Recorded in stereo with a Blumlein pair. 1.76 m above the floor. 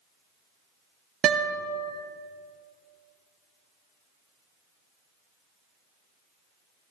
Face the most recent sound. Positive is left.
turn(degrees=-25)